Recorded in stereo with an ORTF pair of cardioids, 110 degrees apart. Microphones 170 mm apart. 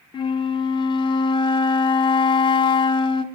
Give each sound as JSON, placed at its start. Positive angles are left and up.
{"t": 0.1, "sound": "a flute", "azimuth_deg": 30, "distance_m": 0.6}